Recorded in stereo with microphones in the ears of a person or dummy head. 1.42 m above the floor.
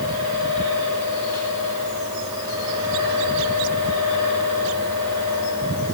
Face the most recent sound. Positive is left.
turn(degrees=-25)  # may be behind; listen again after turning